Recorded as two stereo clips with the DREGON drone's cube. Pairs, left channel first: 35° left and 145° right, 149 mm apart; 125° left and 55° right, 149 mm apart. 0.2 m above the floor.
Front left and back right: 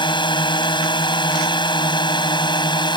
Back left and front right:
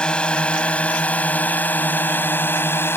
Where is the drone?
45° left; by 3.0 s 60° left.